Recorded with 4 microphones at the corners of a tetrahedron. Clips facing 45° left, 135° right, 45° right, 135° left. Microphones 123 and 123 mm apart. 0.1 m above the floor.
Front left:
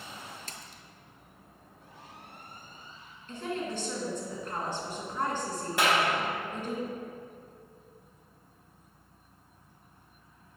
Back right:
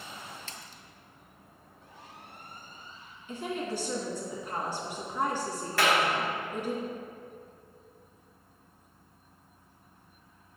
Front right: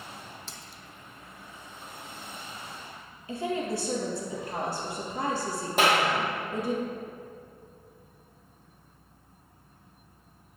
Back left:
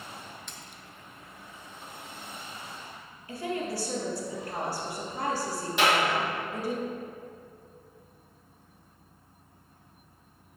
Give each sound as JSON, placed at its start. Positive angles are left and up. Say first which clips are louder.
{"t": 0.5, "sound": "a splash", "louder": "even, even", "azimuth_deg": 5, "distance_m": 0.6}
{"t": 3.3, "sound": "a woman speaking", "louder": "back right 1 dB, front right 2 dB", "azimuth_deg": -70, "distance_m": 1.7}
{"t": 5.8, "sound": "a clap", "louder": "back right 1 dB, front right 1 dB", "azimuth_deg": -20, "distance_m": 2.0}